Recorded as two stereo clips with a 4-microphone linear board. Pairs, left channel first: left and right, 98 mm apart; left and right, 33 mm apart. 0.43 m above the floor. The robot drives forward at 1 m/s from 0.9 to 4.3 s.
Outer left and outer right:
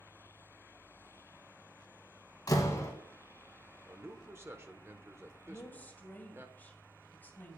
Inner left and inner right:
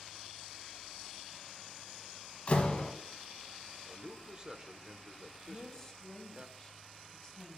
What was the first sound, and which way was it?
A door slam, 40° left (ahead or behind).